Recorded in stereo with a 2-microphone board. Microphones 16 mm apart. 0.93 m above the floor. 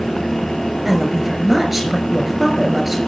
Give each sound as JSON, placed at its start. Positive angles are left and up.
{"t": 0.8, "sound": "a woman speaking", "side_deg": -10, "distance_m": 5.5}